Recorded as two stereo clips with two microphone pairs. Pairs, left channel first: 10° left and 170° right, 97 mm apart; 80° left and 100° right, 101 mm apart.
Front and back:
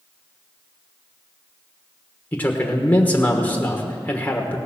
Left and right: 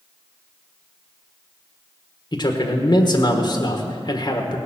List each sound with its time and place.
2.3 s a man speaking: 75° left, 1.2 m